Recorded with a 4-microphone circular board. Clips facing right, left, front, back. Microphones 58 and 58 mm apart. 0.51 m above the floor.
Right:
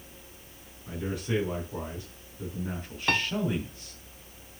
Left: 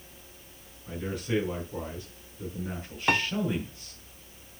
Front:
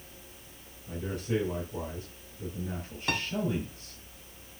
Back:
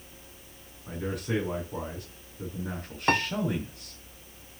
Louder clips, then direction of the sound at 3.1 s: Left 2 dB, back 7 dB; 160° left.